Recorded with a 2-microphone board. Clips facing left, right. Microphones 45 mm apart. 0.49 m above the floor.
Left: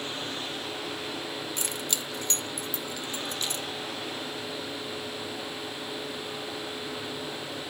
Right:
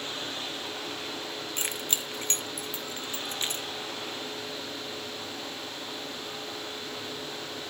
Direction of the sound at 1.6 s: 35° right (ahead or behind).